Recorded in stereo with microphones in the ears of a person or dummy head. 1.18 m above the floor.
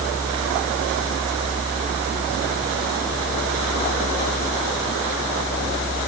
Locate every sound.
Only background noise.